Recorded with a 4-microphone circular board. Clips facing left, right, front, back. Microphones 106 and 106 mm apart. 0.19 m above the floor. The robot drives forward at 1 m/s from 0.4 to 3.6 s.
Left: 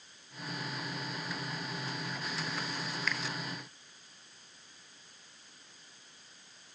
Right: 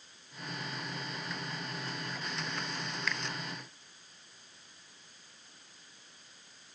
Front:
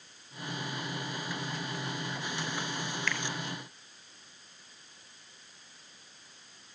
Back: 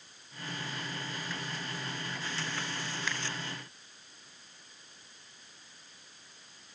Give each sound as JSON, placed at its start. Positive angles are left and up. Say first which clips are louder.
{"t": 3.1, "sound": "a finger snap", "louder": "even, front 2 dB", "azimuth_deg": 180, "distance_m": 0.8}